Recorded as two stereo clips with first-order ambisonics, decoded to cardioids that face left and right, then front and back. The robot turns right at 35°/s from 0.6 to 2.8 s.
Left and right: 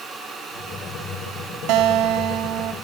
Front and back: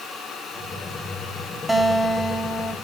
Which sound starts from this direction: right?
A guitar, at 1.7 s.